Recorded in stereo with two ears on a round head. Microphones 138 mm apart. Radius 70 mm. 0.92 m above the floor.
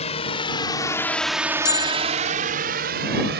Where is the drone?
45° left (ahead or behind); by 3.4 s 75° right (ahead or behind).